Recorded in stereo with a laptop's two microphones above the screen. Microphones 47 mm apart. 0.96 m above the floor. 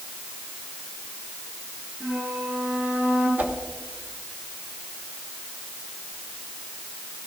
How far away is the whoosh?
About 1.4 m.